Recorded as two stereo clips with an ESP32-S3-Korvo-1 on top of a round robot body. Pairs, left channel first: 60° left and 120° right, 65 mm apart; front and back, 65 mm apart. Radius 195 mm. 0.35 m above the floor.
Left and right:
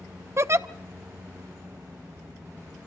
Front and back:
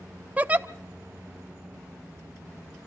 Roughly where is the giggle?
Behind right.